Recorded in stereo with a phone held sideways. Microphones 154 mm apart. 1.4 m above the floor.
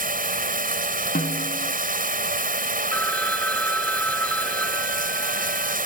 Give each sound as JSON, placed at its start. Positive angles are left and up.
{"t": 0.0, "sound": "running water", "side_deg": -65}
{"t": 1.1, "sound": "a snare drum", "side_deg": 70}
{"t": 2.9, "sound": "a phone ringing", "side_deg": 10}